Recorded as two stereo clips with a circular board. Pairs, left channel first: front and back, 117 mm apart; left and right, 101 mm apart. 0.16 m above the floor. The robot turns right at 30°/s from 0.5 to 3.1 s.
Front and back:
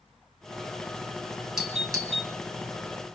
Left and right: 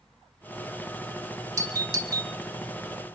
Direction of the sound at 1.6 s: 100° right.